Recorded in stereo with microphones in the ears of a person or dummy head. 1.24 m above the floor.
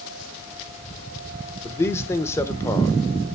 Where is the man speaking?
15° left (ahead or behind), 0.9 m.